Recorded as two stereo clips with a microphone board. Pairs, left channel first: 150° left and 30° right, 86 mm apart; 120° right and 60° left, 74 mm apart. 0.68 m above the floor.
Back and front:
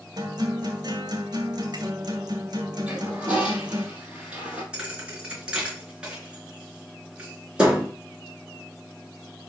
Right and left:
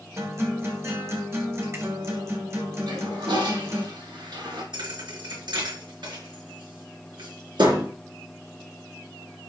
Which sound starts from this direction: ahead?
A guitar, at 0.2 s.